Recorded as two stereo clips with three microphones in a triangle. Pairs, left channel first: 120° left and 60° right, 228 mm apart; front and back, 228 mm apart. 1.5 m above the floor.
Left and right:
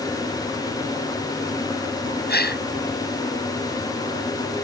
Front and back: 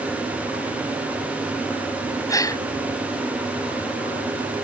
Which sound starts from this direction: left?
A gasp, at 2.3 s.